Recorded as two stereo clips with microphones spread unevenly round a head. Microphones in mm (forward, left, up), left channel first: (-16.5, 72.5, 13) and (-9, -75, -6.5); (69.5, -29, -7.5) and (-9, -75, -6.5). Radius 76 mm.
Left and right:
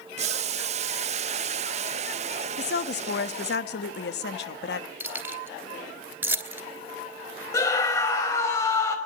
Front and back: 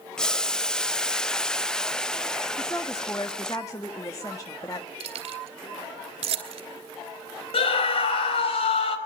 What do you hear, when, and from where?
0.2 s boiling: 50° right, 0.7 m
2.6 s a woman speaking: 100° left, 1.6 m
5.0 s keys jangling: 165° right, 3 m
7.5 s a scream: 20° left, 5 m